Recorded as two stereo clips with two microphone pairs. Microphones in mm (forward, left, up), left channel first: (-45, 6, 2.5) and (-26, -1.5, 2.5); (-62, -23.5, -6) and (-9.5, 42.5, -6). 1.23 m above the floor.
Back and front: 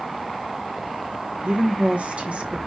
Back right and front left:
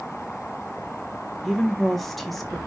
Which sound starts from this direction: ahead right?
A woman speaking, at 1.4 s.